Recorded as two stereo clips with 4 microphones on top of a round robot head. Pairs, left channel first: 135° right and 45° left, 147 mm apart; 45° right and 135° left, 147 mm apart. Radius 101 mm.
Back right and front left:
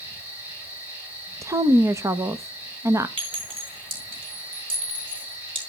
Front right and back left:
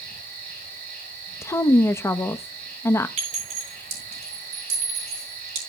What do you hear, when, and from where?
0.0 s an insect: 120° left, 9.5 m
1.4 s a woman speaking: 5° left, 0.7 m
3.2 s a clink: 95° left, 7 m